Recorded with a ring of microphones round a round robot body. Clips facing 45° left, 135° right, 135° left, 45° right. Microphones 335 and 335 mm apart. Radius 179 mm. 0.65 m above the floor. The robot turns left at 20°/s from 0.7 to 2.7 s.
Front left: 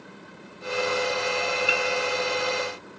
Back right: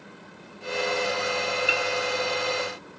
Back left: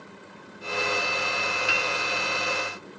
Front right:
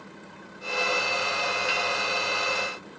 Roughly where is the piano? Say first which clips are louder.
Front left 1 dB, even; behind left.